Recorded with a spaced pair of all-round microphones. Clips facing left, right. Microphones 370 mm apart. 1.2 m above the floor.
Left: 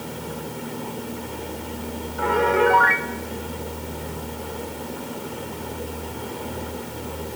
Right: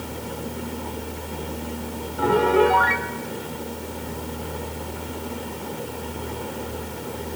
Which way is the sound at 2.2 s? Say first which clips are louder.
Right 2 dB; 50° right (ahead or behind).